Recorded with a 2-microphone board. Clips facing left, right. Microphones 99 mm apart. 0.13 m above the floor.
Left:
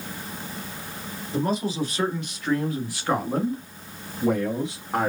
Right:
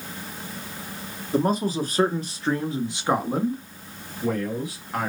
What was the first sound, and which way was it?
A man speaking, 50° right (ahead or behind).